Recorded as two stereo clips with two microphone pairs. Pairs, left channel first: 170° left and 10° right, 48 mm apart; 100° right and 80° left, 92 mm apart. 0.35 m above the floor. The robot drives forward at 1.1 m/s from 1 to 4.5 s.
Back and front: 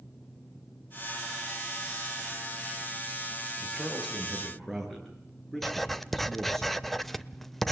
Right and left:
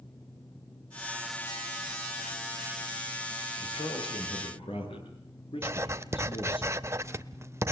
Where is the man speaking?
95° right, 6 m; by 6.6 s 105° right, 6.5 m.